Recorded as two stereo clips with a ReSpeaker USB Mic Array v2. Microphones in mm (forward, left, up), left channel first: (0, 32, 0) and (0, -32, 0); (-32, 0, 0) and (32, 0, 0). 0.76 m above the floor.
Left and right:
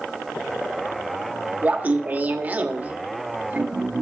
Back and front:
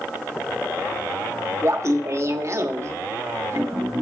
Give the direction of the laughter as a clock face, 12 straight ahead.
1 o'clock.